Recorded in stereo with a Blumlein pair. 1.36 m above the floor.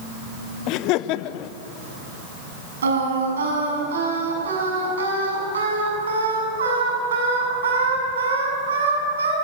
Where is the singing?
65° right, 7 m.